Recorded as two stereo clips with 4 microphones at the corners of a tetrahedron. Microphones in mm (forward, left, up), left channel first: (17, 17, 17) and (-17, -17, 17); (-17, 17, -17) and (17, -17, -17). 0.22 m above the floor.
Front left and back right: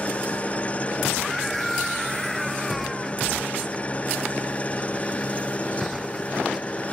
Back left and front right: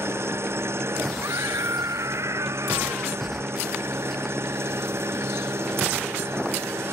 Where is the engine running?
15° right.